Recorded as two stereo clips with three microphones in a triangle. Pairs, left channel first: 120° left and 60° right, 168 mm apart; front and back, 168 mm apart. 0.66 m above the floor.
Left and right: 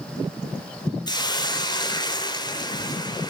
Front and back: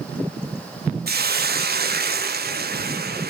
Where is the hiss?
Straight behind, 0.6 m.